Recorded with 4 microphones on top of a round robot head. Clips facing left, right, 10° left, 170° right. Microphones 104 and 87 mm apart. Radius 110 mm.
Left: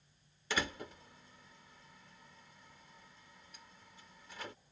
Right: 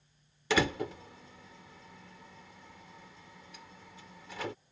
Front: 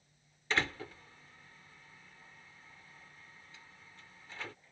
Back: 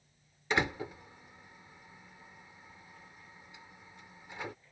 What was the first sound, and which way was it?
A door slam, 95° right.